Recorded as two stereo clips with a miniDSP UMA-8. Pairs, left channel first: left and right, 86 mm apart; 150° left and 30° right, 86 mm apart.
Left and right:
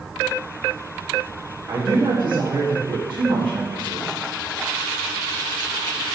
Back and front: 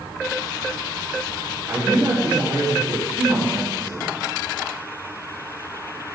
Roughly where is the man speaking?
Ahead right.